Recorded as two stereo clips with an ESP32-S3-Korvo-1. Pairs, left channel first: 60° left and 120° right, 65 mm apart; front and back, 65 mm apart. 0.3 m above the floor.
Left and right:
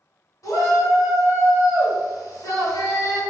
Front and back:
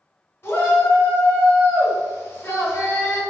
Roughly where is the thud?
I don't hear a thud.